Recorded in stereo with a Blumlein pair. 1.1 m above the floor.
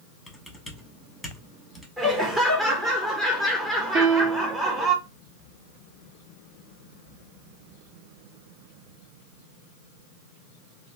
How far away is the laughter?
About 0.9 m.